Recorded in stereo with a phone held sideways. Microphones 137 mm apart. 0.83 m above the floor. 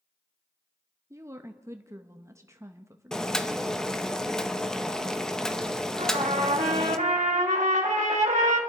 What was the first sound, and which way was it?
A woman speaking, 20° right (ahead or behind).